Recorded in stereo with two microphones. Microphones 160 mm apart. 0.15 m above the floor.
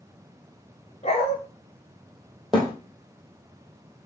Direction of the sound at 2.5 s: Centre (ahead or behind).